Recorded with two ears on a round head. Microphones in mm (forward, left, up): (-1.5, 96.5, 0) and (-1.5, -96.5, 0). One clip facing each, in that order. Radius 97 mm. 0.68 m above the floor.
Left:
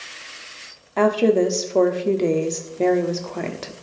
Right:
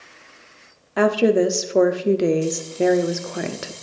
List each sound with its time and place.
1.0 s a woman speaking: 10° right (ahead or behind), 1.0 m